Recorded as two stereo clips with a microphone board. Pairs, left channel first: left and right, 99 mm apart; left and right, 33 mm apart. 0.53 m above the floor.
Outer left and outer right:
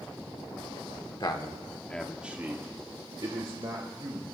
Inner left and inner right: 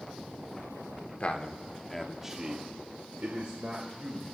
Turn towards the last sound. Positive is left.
turn(degrees=-65)  # may be behind; listen again after turning